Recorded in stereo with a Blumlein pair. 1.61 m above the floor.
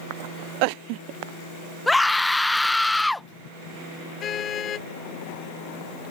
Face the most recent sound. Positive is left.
turn(degrees=25)